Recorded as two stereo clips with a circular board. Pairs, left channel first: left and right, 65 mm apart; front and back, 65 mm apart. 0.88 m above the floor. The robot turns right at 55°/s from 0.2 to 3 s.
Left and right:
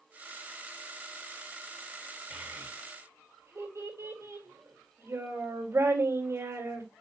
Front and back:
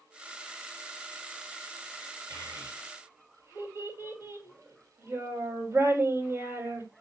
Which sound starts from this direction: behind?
A child speaking, at 2.3 s.